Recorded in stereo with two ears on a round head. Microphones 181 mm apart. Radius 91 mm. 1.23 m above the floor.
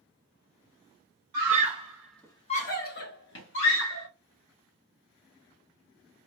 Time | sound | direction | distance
1.3 | a scream | 50° right (ahead or behind) | 0.9 m